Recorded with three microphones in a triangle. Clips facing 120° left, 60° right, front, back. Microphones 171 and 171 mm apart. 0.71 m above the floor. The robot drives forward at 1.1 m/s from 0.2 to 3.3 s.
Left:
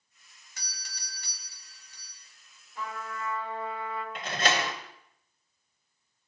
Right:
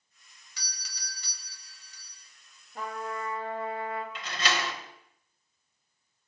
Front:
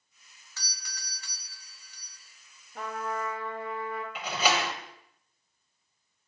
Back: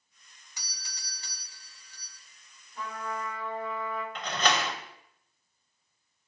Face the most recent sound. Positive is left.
turn(degrees=80)